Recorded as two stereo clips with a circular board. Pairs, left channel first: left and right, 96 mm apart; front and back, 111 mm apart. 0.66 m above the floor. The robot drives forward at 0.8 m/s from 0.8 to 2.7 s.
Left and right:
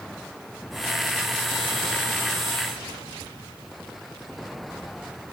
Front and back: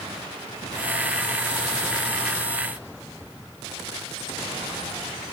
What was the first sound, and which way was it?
Only background noise.